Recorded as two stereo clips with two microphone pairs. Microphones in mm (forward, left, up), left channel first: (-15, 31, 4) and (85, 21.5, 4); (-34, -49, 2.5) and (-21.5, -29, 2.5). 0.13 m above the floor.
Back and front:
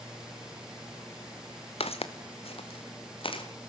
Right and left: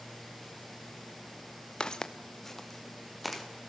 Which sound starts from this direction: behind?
Footsteps, at 1.8 s.